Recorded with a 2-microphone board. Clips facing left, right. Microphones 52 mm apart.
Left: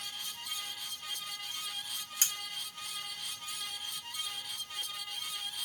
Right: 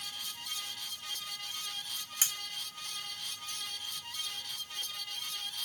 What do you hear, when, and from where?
2.2 s cutlery clinking: 20° right (ahead or behind), 1.2 m